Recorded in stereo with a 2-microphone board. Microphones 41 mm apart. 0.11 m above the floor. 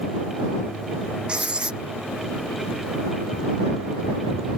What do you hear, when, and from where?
1.3 s writing: 25° right (ahead or behind)